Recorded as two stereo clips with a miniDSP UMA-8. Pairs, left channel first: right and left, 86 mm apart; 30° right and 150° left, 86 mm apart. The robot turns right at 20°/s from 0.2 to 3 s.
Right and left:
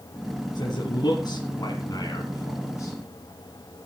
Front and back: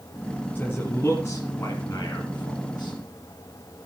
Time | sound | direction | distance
0.6 | a man speaking | 95° right | 2 m